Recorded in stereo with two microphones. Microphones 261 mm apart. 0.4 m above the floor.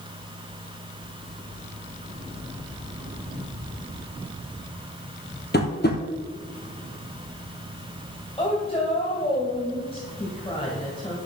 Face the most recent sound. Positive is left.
turn(degrees=20)  # may be behind; listen again after turning